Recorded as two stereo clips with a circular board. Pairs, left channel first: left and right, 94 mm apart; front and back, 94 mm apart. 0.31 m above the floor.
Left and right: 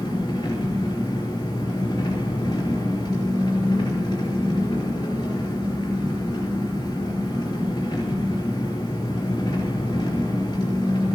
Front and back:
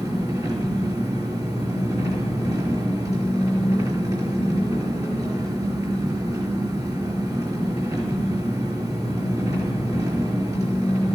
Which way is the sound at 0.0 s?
135° left.